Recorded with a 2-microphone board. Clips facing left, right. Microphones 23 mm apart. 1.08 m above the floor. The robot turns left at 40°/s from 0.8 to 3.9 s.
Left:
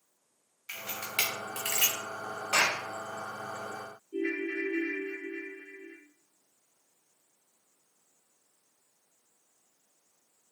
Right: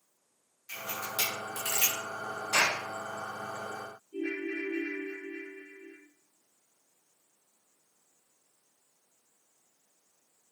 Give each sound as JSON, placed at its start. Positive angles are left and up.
{"t": 0.7, "sound": "a camera shutter", "side_deg": 45, "distance_m": 1.3}
{"t": 2.5, "sound": "a clap", "side_deg": 70, "distance_m": 2.5}
{"t": 4.1, "sound": "a ringtone", "side_deg": 55, "distance_m": 1.0}